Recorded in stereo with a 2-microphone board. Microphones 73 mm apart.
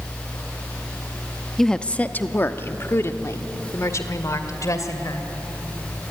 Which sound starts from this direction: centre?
A woman speaking, at 1.6 s.